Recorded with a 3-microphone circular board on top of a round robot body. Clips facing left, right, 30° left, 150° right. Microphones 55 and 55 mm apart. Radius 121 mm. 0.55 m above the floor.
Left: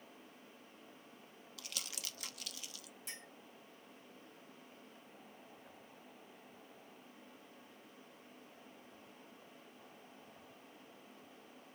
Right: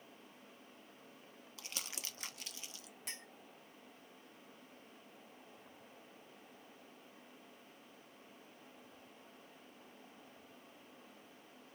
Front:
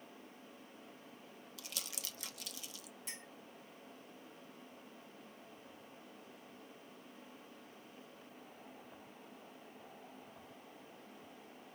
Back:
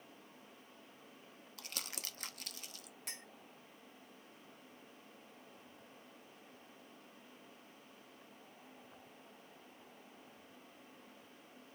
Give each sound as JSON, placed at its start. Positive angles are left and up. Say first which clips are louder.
{"t": 1.6, "sound": "crumpling", "louder": "even, back 1 dB", "azimuth_deg": -140, "distance_m": 1.2}
{"t": 3.1, "sound": "a clink", "louder": "right 1 dB, even", "azimuth_deg": -120, "distance_m": 2.0}